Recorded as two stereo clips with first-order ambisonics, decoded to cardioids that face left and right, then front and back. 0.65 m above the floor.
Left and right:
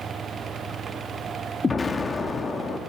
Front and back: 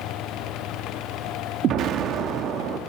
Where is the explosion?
160° left, 0.9 m.